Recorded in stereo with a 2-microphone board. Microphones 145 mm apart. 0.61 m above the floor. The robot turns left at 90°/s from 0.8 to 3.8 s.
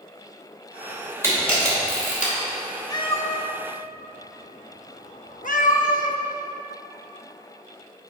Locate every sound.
1.2 s a camera shutter: 15° left (ahead or behind), 2.5 m; by 2.3 s 55° left (ahead or behind), 2.5 m
2.9 s a cat meowing: 25° left (ahead or behind), 0.7 m; by 6.2 s 65° left (ahead or behind), 0.7 m